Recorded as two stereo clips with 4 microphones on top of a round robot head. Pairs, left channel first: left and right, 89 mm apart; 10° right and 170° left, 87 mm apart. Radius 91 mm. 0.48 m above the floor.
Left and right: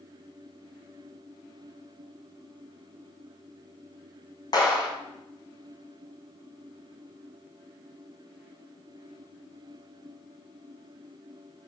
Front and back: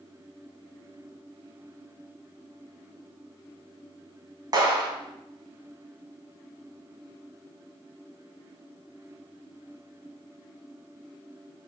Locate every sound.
4.5 s a clap: 125° left, 4 m